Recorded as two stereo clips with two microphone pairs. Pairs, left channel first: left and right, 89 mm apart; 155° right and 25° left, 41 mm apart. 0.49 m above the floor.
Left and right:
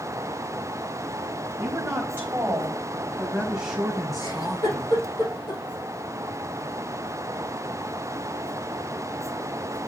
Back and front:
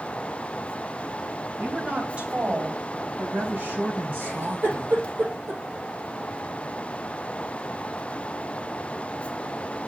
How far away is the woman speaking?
About 4 m.